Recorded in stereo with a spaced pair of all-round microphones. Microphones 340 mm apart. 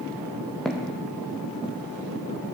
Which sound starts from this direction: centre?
Footsteps, at 0.7 s.